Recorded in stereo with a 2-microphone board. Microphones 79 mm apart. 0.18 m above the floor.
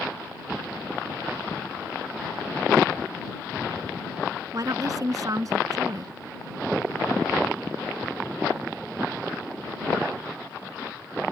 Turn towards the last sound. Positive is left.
turn(degrees=-50)  # may be behind; listen again after turning